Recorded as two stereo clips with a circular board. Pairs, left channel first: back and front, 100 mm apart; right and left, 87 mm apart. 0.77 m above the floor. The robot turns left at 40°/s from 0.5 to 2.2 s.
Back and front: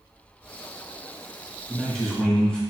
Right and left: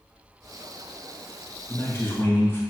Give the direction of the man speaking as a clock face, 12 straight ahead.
3 o'clock.